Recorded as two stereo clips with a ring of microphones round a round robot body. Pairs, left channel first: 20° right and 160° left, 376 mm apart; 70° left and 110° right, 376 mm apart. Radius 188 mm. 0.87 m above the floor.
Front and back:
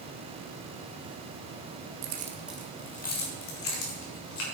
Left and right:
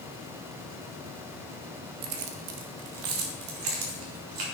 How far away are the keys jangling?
About 1.0 m.